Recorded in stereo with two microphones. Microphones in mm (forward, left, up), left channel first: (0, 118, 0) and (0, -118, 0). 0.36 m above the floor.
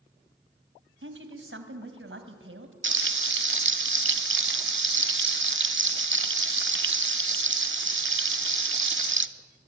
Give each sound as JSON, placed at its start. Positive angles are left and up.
{"t": 1.0, "sound": "a woman speaking", "side_deg": -55, "distance_m": 2.5}
{"t": 2.8, "sound": "frying", "side_deg": -55, "distance_m": 0.7}